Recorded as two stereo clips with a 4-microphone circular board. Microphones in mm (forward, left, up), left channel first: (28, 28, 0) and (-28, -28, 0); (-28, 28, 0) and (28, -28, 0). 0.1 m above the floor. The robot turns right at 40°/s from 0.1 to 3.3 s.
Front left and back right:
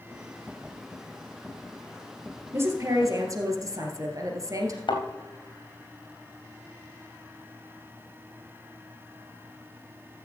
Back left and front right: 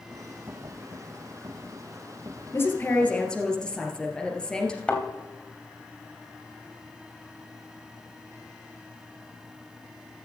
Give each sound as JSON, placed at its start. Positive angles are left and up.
{"t": 2.5, "sound": "a woman speaking", "azimuth_deg": 180, "distance_m": 2.0}
{"t": 4.9, "sound": "a thud", "azimuth_deg": 60, "distance_m": 3.0}